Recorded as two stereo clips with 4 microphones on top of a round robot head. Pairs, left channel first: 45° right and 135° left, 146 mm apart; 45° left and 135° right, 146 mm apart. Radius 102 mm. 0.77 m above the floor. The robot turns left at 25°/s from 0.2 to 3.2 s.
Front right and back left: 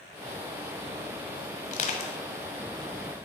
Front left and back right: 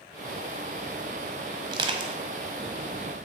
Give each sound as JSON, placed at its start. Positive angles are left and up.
{"t": 1.7, "sound": "crushing", "azimuth_deg": -70, "distance_m": 1.1}